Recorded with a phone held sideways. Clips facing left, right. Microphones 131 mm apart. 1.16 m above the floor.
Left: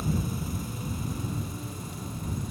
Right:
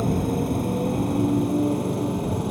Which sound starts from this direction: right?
A motorcycle, at 0.0 s.